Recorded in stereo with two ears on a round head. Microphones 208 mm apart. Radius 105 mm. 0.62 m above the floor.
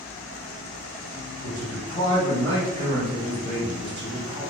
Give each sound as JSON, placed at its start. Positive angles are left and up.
{"t": 1.4, "sound": "a man speaking", "side_deg": 25, "distance_m": 1.2}